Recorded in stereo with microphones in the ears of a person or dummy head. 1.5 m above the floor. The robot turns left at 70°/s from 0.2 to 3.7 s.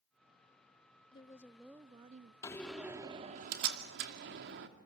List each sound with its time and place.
1.1 s a woman speaking: 35° left, 0.6 m; by 2.3 s 50° right, 0.6 m
2.4 s a door slam: 20° left (ahead or behind), 2 m; by 4.7 s 60° right (ahead or behind), 2 m